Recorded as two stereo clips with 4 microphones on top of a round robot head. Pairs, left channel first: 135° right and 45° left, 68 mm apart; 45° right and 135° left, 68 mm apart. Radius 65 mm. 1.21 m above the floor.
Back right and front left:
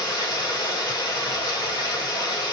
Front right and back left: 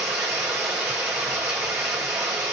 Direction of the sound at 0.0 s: 155° right.